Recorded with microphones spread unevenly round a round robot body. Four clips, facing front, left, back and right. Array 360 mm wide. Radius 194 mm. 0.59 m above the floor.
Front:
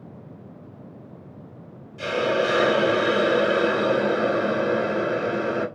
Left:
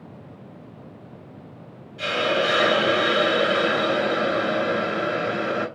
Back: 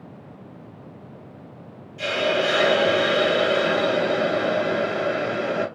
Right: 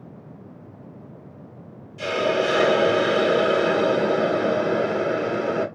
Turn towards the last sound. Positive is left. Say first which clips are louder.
# right 1 dB, even
turn(degrees=-85)